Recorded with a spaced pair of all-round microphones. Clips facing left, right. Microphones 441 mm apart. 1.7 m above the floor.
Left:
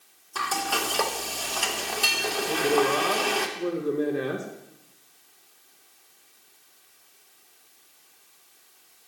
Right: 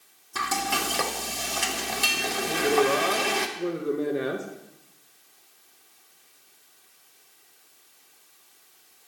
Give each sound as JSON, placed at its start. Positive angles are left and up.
{"t": 0.3, "sound": "frying", "side_deg": -40, "distance_m": 1.2}
{"t": 2.5, "sound": "a woman speaking", "side_deg": 5, "distance_m": 2.0}